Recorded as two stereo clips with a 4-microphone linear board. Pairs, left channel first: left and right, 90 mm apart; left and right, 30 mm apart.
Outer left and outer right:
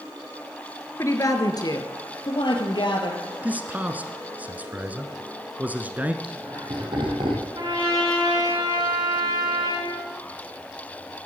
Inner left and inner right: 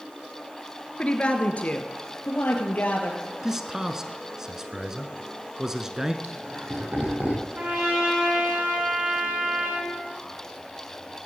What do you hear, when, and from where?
1.0 s a woman speaking: 35° left (ahead or behind), 1.8 m; by 3.2 s 65° left (ahead or behind), 3 m
3.4 s a man speaking: 20° right (ahead or behind), 1.1 m
6.2 s laughter: 65° right (ahead or behind), 4 m
7.5 s a trumpet: 60° right (ahead or behind), 9 m